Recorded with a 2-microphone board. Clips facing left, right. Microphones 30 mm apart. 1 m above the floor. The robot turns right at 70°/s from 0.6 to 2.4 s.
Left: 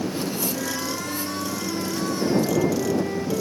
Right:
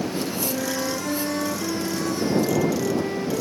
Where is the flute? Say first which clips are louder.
Right 2 dB; 130° right; by 3.4 s 5° right.